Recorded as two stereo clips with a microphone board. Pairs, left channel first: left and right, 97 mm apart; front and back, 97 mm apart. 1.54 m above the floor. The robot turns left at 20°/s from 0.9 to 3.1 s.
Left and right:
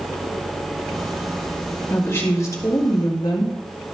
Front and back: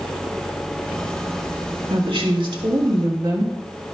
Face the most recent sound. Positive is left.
turn(degrees=135)